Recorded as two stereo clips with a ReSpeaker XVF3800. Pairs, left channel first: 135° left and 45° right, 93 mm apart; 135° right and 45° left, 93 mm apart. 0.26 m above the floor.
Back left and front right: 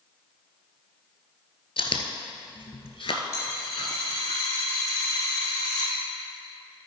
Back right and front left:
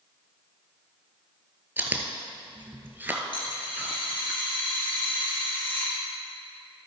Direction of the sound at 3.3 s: 170° right.